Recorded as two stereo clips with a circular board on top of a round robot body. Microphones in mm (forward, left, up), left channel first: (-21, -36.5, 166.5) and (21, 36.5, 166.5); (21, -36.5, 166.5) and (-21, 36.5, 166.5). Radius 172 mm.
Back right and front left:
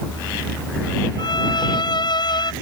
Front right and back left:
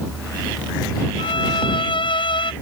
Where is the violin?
85° right.